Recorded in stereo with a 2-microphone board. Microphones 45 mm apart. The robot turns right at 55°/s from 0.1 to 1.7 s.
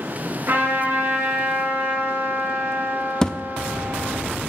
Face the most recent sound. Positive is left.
turn(degrees=15)  # may be behind; listen again after turning